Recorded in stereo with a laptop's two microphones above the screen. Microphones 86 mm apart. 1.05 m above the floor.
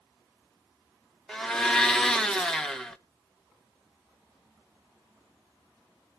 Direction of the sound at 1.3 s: 10° left (ahead or behind).